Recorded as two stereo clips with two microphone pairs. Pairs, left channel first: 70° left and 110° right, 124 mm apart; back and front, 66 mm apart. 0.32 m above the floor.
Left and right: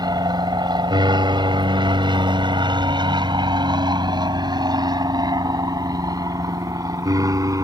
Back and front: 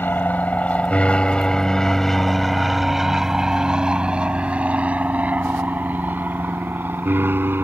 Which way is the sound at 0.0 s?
140° right.